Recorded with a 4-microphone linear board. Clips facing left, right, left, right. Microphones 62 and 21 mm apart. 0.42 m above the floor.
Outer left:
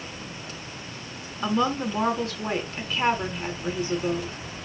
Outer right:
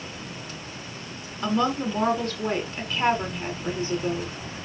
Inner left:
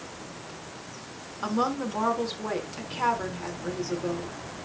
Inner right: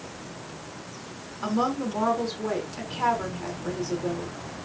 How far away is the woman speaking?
About 5 m.